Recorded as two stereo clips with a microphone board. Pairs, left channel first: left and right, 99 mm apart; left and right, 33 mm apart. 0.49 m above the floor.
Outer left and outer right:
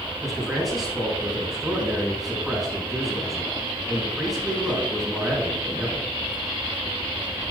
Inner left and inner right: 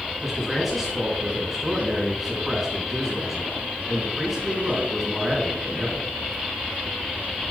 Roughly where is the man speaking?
Centre.